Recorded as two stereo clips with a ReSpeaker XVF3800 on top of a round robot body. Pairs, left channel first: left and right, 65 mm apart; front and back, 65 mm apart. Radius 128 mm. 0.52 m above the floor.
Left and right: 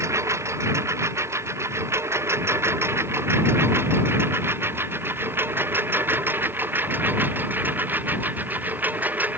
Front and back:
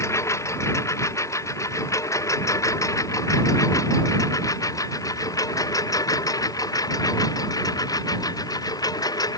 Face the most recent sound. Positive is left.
turn(degrees=-25)